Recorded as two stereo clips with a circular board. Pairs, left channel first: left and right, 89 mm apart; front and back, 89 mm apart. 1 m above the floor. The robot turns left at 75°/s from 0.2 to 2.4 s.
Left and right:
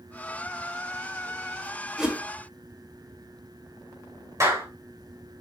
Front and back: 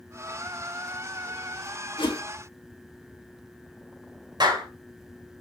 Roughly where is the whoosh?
Ahead.